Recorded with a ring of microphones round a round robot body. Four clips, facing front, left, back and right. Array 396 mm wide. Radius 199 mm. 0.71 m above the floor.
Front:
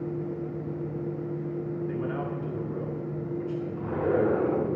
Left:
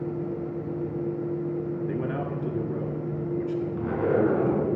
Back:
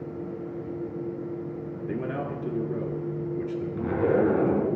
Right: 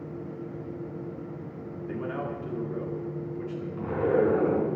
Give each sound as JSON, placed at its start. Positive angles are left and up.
{"t": 1.9, "sound": "a man speaking", "azimuth_deg": 135, "distance_m": 2.0}
{"t": 3.8, "sound": "a zipper", "azimuth_deg": 140, "distance_m": 3.5}